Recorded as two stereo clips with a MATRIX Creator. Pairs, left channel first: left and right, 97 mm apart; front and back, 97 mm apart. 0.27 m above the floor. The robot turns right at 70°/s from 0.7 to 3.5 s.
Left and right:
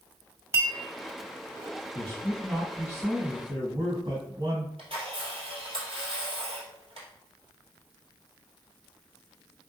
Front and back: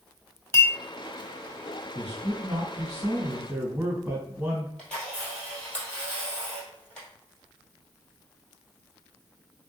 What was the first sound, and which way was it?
A clink, 45° right.